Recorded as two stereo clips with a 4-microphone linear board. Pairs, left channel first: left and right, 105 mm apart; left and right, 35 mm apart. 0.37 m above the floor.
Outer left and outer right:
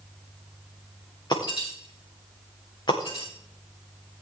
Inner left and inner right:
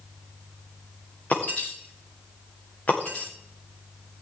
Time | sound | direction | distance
1.3 | breaking glass | 45° left (ahead or behind) | 6 m